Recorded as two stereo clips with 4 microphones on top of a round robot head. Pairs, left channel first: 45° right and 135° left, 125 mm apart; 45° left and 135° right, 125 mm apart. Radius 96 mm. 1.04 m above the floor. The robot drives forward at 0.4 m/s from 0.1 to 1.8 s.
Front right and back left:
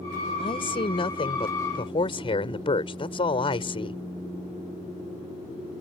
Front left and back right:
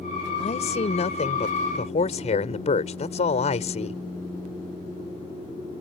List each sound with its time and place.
0.4 s a man speaking: 5° left